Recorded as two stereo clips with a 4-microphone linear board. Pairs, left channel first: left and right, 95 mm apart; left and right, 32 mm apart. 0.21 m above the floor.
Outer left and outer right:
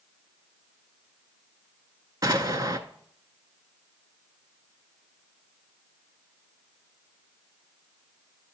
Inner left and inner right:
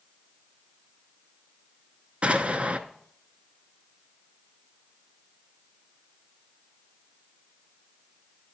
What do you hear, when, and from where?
2.2 s an explosion: 45° right (ahead or behind), 0.6 m